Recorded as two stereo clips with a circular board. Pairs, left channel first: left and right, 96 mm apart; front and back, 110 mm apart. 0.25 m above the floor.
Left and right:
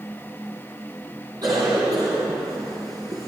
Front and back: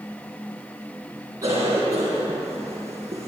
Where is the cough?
125° right, 2.5 m.